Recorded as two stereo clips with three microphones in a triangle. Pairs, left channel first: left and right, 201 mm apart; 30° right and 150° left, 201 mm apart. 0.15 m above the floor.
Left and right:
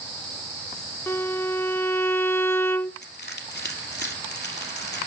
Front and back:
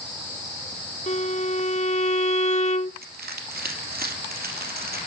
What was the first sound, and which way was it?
A violin, 15° left.